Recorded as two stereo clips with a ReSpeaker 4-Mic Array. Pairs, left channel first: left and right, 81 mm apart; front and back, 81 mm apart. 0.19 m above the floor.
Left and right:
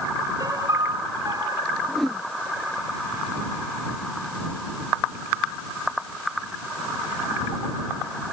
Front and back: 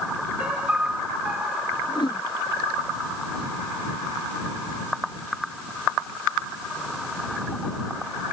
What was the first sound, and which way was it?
A piano, 110° right.